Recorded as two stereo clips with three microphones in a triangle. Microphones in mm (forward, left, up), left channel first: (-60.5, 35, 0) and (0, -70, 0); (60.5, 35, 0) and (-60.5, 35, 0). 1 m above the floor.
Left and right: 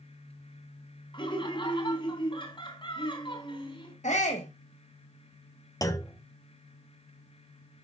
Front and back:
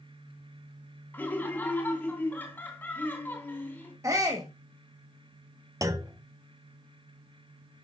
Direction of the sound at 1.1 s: 75° left.